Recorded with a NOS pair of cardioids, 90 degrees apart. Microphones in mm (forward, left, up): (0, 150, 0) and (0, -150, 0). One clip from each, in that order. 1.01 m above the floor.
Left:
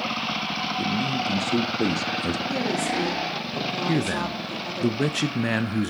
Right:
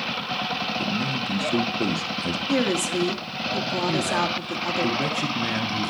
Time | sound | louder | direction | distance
0.8 | a man speaking | left 1 dB | 10° left | 1.3 m
2.5 | a woman speaking | right 5 dB | 40° right | 2 m
3.9 | a man speaking | right 4 dB | 35° left | 0.9 m